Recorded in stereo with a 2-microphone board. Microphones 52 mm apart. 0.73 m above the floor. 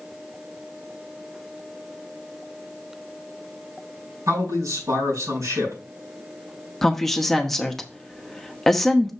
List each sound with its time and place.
4.3 s a man speaking: 80° right, 5 m
6.8 s a woman speaking: 5° left (ahead or behind), 0.9 m